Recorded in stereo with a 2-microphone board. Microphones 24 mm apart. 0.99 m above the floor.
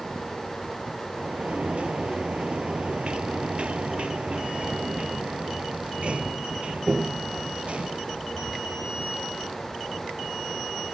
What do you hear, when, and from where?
1.2 s a sliding door: 55° right (ahead or behind)